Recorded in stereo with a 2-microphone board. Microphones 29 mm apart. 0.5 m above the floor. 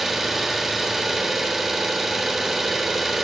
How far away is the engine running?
About 0.7 m.